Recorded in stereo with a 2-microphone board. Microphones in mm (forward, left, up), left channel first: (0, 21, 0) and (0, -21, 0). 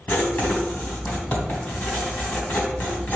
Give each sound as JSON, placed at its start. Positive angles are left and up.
{"t": 0.1, "sound": "writing", "side_deg": 45, "distance_m": 2.5}